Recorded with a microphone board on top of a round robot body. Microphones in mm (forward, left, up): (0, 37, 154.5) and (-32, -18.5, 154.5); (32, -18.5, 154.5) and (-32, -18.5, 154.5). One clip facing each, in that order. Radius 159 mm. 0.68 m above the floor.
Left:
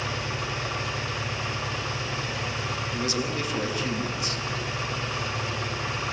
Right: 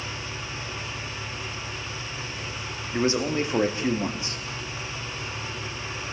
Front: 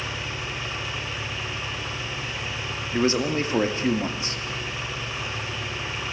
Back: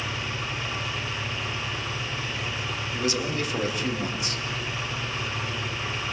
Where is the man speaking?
60° right, 2.5 m.